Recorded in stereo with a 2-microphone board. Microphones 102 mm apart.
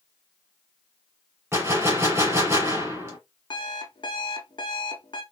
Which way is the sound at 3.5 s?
50° left (ahead or behind).